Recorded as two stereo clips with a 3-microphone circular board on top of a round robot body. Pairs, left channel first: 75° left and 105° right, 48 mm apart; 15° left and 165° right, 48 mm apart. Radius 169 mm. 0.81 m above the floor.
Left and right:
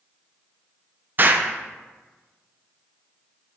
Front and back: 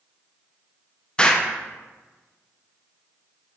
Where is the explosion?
55° right, 0.6 m.